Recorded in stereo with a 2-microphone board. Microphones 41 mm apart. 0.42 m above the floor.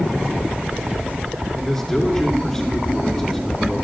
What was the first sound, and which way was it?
A man speaking, 10° left (ahead or behind).